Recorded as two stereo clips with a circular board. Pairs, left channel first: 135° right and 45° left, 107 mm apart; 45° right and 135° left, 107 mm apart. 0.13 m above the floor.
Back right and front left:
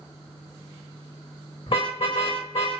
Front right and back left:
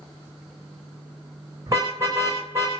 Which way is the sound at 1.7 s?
165° right.